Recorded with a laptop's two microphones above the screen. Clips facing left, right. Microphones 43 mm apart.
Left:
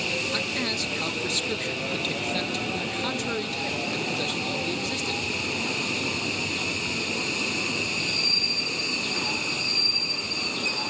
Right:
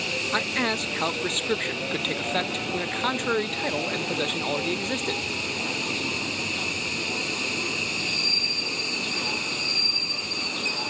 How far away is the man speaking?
About 0.6 m.